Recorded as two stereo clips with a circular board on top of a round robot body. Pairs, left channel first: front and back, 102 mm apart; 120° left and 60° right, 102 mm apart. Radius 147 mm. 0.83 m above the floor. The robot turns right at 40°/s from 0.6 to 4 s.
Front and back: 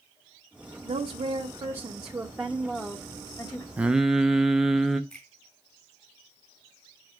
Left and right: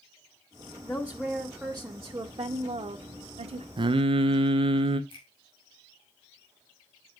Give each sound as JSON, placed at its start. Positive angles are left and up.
{"t": 0.8, "sound": "a woman speaking", "azimuth_deg": -165, "distance_m": 0.9}
{"t": 3.8, "sound": "singing", "azimuth_deg": -105, "distance_m": 0.6}
{"t": 5.1, "sound": "a finger snap", "azimuth_deg": 85, "distance_m": 5.5}